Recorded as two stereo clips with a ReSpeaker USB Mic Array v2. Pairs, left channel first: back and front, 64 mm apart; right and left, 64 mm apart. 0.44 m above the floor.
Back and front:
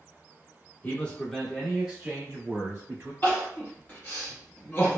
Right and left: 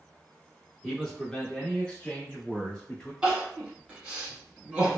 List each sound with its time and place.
0.8 s a man speaking: 170° right, 0.9 m; by 3.1 s 25° right, 1.2 m
3.2 s crying: 155° left, 1.5 m